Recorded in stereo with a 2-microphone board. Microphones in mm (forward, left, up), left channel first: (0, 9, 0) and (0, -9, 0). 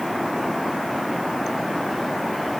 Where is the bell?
No bell in this recording.